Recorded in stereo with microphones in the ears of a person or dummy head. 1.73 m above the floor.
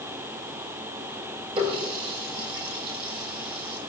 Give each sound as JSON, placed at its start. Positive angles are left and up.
{"t": 1.6, "sound": "a running tap", "side_deg": -30, "distance_m": 4.5}